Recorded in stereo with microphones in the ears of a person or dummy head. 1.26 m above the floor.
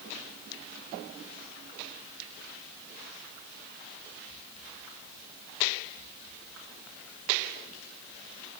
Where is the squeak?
No squeak in this recording.